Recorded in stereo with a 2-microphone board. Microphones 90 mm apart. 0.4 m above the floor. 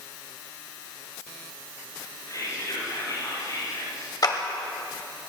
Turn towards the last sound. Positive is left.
turn(degrees=50)  # may be behind; listen again after turning